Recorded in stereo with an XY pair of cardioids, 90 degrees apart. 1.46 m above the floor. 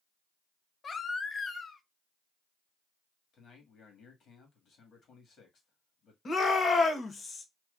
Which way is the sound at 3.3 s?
65° left.